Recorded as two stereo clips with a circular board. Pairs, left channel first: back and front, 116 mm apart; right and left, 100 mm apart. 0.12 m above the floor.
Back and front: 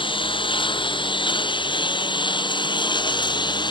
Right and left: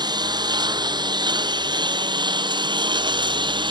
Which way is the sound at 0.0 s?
135° left.